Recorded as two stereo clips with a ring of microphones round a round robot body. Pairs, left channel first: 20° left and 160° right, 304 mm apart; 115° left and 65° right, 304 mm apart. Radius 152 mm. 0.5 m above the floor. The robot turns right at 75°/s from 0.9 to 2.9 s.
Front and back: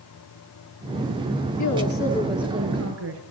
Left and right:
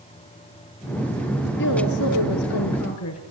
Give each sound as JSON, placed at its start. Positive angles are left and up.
{"t": 1.6, "sound": "a woman speaking", "azimuth_deg": 55, "distance_m": 6.5}